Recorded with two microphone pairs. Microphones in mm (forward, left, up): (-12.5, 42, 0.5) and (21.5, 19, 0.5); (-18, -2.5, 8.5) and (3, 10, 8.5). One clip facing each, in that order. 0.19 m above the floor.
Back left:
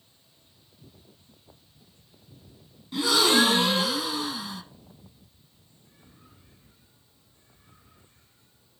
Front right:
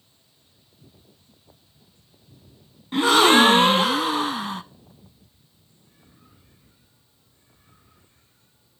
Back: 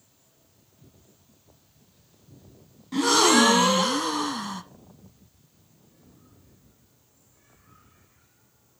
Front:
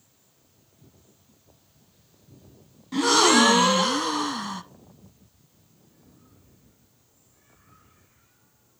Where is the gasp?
55° right, 0.5 m.